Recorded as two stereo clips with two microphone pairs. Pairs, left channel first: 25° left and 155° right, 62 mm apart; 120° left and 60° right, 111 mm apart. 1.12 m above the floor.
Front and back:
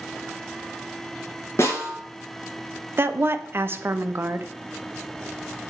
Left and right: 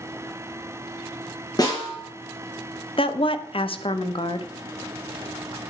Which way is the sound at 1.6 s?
70° left.